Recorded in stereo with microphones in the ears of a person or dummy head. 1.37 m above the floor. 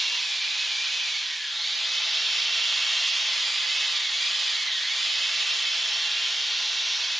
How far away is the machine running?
About 1.5 m.